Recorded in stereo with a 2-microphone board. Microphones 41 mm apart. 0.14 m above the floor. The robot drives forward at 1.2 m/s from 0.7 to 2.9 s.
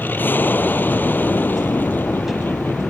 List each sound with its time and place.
0.0 s an aircraft: 55° left (ahead or behind)